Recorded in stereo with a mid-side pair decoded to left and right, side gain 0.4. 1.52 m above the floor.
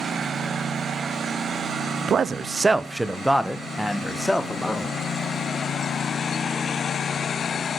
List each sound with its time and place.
2.1 s a man speaking: 60° right, 0.6 m; by 5.0 s 15° left, 1.7 m